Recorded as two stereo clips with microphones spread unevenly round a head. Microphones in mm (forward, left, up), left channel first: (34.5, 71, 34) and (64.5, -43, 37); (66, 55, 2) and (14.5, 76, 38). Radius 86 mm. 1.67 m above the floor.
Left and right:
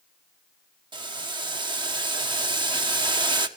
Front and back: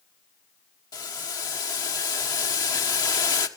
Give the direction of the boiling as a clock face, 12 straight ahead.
1 o'clock.